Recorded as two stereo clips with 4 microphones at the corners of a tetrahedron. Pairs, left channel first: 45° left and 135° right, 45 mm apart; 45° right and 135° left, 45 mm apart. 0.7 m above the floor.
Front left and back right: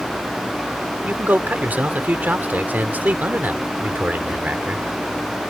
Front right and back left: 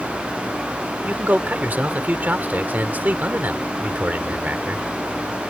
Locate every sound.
1.1 s a man speaking: straight behind